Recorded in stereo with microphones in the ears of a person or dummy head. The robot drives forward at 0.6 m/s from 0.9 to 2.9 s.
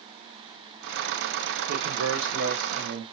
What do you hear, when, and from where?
1.7 s a man speaking: 85° right, 0.8 m; by 3.0 s 45° right (ahead or behind), 1.1 m